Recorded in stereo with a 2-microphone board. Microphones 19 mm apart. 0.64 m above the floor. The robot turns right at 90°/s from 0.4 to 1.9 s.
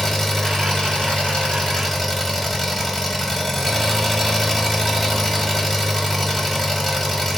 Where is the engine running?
15° left, 1.5 m; by 7.4 s 150° left, 1.5 m.